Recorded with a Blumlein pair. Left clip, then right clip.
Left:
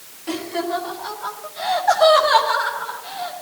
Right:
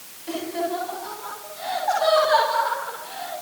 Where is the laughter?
25° left, 4.5 m; by 3.3 s 45° left, 7 m.